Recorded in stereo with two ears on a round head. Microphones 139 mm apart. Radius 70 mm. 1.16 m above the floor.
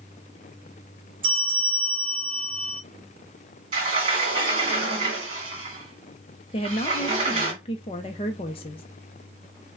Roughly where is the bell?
Right.